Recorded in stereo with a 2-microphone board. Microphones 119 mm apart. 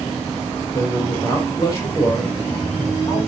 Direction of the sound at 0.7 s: 25° left (ahead or behind).